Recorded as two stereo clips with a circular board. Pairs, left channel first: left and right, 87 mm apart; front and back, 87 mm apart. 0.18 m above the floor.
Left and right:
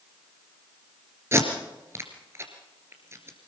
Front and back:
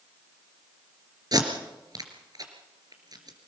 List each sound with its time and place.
1.3 s tape being pulled: 145° right, 3 m